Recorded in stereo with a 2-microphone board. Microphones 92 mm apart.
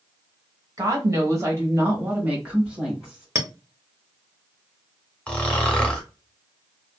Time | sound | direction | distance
0.8 | a woman speaking | 40° right (ahead or behind) | 1.2 m
3.4 | a clink | 30° right (ahead or behind) | 0.6 m
5.3 | snoring | 10° left (ahead or behind) | 0.8 m